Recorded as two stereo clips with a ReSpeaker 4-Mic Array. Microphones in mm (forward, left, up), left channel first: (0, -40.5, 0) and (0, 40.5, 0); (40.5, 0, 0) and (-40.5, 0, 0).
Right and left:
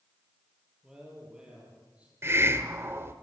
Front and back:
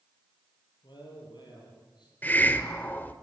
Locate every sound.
0.8 s a man speaking: 10° left, 9 m; by 2.1 s 15° left, 9.5 m
2.2 s a hiss: 55° left, 1.4 m